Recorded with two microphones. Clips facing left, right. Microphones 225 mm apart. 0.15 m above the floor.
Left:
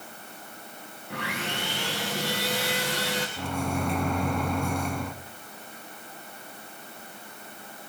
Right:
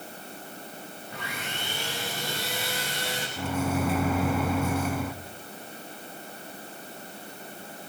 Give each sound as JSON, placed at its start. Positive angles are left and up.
{"t": 1.1, "sound": "sawing", "side_deg": 70, "distance_m": 5.5}
{"t": 3.4, "sound": "a microwave", "side_deg": -5, "distance_m": 0.8}